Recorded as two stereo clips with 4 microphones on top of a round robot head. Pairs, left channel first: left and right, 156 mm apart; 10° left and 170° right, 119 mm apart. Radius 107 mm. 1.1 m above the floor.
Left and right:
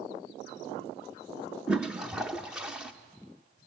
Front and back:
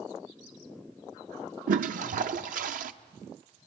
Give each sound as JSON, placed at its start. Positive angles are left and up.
{"t": 1.7, "sound": "a toilet flushing", "azimuth_deg": -175, "distance_m": 0.6}